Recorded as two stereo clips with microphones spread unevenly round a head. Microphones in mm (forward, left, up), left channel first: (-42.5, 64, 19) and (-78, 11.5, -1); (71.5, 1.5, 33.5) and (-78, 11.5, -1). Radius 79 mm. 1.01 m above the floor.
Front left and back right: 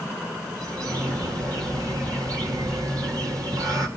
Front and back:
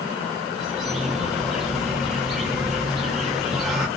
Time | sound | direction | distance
0.6 | a bird | 100° right | 1.7 m